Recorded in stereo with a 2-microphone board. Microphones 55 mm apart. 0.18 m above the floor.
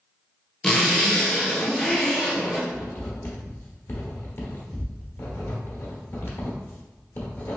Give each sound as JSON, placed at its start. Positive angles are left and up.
{"t": 0.6, "sound": "a zipper", "side_deg": 10, "distance_m": 0.8}
{"t": 2.7, "sound": "writing", "side_deg": 55, "distance_m": 1.4}